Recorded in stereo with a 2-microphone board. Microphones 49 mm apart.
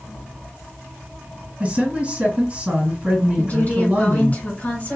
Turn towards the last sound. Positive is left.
turn(degrees=35)  # may be behind; listen again after turning